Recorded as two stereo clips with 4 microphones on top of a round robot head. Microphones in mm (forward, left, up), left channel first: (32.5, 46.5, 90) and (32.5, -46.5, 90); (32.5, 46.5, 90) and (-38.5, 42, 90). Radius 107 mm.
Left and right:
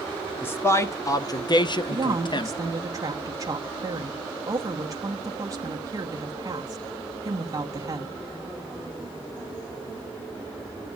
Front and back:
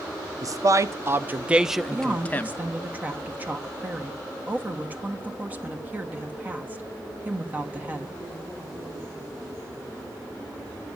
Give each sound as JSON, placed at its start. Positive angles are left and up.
{"t": 0.4, "sound": "a man speaking", "azimuth_deg": 160, "distance_m": 1.3}
{"t": 1.9, "sound": "a woman speaking", "azimuth_deg": -120, "distance_m": 1.2}